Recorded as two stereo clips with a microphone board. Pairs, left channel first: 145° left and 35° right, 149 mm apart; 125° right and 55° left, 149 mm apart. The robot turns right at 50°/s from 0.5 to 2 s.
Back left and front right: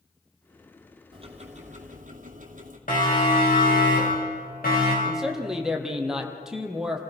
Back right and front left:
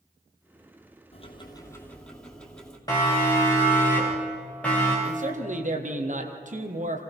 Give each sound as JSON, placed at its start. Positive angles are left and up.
{"t": 1.1, "sound": "ticking", "azimuth_deg": -85, "distance_m": 2.5}
{"t": 2.9, "sound": "a siren", "azimuth_deg": 170, "distance_m": 7.0}
{"t": 5.0, "sound": "a man speaking", "azimuth_deg": 50, "distance_m": 2.5}